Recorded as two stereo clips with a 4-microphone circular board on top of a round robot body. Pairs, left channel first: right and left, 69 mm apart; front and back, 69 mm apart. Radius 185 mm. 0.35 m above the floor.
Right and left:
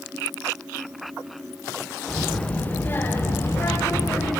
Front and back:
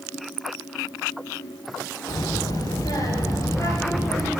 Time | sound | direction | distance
2.1 | a child speaking | 10° right | 1.5 m